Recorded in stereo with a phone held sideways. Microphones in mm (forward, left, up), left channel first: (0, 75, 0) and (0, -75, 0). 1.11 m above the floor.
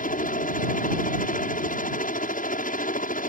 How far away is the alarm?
No alarm in this recording.